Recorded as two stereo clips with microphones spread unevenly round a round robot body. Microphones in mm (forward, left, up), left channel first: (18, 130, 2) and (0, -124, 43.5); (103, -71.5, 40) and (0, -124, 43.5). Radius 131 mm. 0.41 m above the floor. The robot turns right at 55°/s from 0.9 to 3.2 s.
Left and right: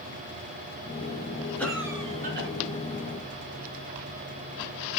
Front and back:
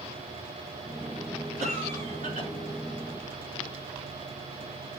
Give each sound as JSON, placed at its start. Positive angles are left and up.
{"t": 1.6, "sound": "a cough", "azimuth_deg": 170, "distance_m": 5.5}